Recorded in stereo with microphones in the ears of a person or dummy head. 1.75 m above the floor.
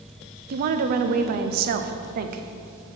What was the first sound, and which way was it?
A woman speaking, 50° right (ahead or behind).